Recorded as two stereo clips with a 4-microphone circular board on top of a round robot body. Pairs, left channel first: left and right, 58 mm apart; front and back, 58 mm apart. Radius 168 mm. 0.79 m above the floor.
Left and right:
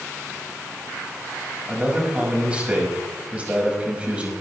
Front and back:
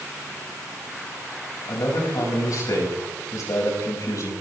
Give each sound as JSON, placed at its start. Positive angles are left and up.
{"t": 1.7, "sound": "a man speaking", "azimuth_deg": -20, "distance_m": 5.5}